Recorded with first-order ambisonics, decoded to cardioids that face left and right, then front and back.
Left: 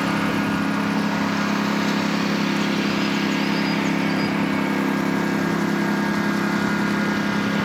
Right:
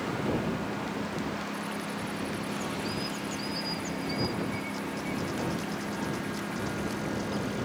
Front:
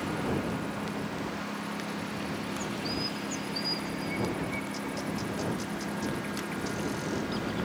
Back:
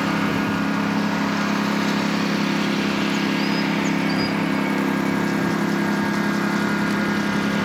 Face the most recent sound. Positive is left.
turn(degrees=135)